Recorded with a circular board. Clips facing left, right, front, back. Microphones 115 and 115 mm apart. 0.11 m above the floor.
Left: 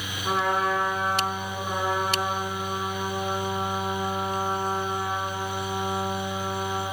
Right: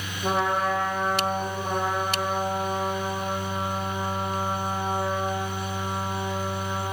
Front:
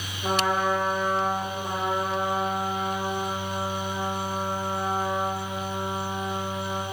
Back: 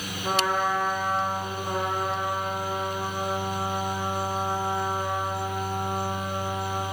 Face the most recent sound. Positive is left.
turn(degrees=-65)